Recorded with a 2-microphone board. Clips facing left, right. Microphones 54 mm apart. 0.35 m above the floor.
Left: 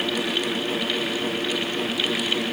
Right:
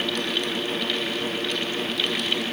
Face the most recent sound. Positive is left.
No sound to turn to.